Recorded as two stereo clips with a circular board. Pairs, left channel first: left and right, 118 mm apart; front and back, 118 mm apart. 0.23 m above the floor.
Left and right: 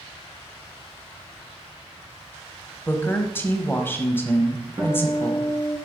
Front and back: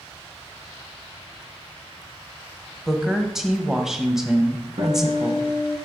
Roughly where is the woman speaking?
Left.